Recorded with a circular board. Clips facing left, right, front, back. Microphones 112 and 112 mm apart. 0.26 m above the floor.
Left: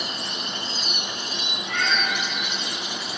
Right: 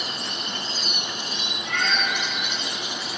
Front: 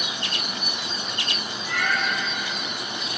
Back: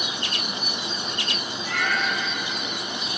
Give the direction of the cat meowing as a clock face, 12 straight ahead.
2 o'clock.